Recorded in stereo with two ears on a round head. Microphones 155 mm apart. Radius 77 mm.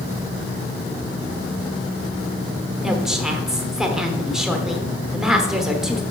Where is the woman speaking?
5° right (ahead or behind), 0.9 m.